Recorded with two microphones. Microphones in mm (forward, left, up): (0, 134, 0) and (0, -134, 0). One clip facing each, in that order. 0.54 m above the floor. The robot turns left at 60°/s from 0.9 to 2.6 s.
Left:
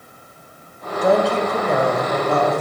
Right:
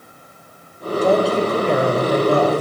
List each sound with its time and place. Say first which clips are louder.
1.0 s a woman speaking: right 1 dB; 15° left, 2.5 m; by 2.6 s 80° right, 2.5 m